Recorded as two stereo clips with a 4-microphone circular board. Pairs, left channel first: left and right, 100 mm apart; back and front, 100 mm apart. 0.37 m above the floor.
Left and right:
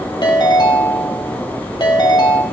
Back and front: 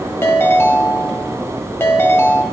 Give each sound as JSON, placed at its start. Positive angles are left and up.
{"t": 0.2, "sound": "a ringtone", "azimuth_deg": 120, "distance_m": 1.5}